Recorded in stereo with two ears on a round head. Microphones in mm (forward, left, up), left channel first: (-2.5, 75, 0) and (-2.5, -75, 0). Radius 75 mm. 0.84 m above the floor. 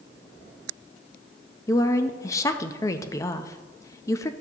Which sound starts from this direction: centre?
A woman speaking, at 1.7 s.